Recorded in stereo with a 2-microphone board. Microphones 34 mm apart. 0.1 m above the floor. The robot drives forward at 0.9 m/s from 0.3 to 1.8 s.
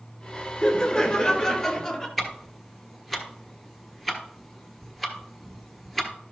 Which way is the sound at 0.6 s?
25° left (ahead or behind).